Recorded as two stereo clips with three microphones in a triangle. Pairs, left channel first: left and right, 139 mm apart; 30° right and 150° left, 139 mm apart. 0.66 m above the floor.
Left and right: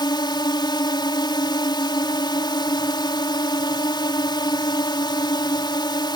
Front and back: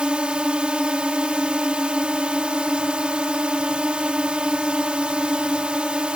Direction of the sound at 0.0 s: 75° left.